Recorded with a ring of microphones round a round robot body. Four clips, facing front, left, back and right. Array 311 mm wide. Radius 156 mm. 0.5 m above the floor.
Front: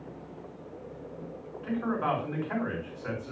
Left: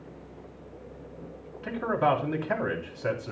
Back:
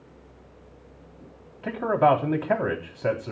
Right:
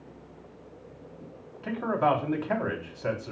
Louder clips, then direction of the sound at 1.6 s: Even, back 9 dB; 170° left.